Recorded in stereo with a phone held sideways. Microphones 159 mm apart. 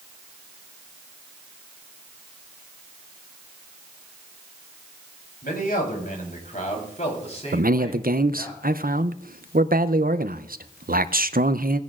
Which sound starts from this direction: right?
A man speaking, at 7.5 s.